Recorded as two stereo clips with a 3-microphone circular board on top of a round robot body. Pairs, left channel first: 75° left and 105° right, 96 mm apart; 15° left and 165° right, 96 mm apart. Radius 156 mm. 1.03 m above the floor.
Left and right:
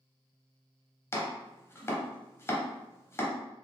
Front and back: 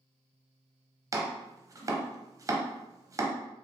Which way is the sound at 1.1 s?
140° left.